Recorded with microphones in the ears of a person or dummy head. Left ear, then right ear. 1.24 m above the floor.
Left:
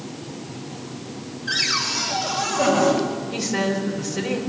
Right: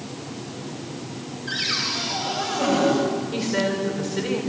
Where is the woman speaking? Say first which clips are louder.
Even; centre (ahead or behind), 5 m.